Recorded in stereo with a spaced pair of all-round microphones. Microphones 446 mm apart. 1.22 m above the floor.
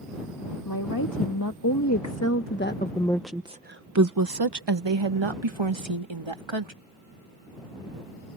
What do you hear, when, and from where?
0.7 s a woman speaking: 50° left (ahead or behind); by 6.7 s 80° right